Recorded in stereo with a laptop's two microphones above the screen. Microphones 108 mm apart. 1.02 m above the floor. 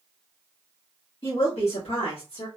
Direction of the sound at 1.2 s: 60° left (ahead or behind).